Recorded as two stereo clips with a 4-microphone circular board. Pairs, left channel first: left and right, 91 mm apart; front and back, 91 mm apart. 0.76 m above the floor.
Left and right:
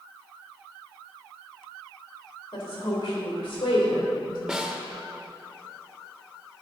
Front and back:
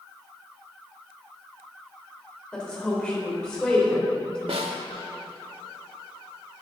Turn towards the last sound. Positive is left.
turn(degrees=-175)